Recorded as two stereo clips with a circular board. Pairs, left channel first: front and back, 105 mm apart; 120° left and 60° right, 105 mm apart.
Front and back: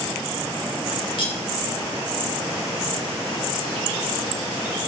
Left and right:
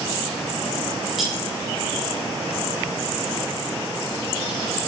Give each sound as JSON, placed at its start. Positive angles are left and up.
{"t": 1.2, "sound": "cutlery clinking", "azimuth_deg": 30, "distance_m": 1.1}